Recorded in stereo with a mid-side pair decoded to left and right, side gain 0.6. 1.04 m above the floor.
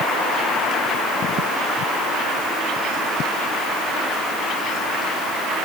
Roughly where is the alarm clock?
I don't hear an alarm clock.